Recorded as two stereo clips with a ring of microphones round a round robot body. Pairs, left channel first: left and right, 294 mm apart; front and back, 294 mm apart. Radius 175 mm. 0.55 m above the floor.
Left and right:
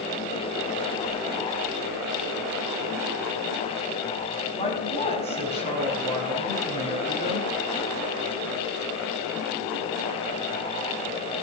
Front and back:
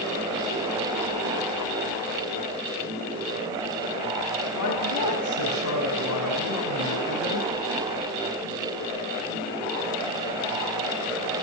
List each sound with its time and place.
4.5 s a woman speaking: 20° left, 4.5 m